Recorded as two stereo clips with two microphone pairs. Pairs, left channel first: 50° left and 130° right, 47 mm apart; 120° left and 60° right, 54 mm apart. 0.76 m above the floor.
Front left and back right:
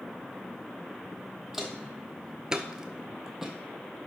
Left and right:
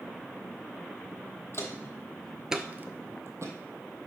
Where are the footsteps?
150° left, 1.4 m; by 3.5 s 50° right, 1.6 m.